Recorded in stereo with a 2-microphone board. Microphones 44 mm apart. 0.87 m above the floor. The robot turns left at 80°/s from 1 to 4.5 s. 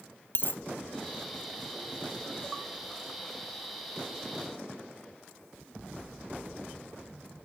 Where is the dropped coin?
50° left (ahead or behind), 0.8 m.